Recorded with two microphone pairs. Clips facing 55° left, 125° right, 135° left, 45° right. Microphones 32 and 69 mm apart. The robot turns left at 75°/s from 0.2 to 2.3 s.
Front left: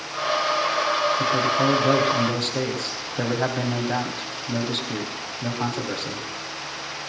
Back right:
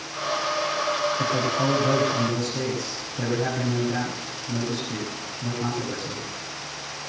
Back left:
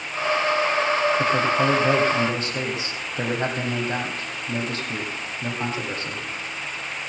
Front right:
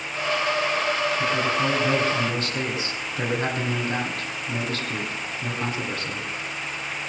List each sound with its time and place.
1.2 s a man speaking: 155° left, 4.5 m; by 6.3 s 75° left, 4.5 m